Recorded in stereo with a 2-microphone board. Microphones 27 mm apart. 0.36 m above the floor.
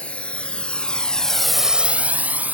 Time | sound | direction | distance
0.0 | a drone | 45° left (ahead or behind) | ?